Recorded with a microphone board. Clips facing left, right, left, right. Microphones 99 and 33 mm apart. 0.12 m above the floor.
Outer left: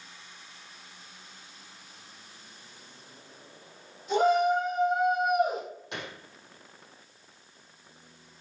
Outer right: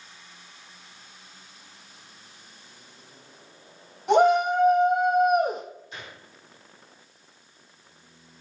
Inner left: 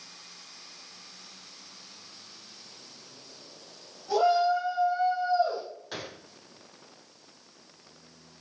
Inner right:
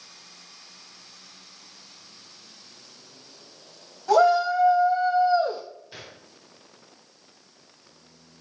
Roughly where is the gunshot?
Left.